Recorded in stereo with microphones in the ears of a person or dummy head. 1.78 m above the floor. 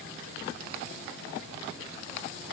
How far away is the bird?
I don't hear a bird.